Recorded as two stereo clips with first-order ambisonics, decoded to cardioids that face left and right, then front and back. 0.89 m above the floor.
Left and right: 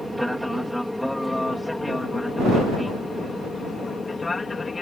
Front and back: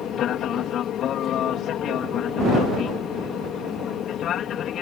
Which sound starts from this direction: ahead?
An aircraft, at 0.0 s.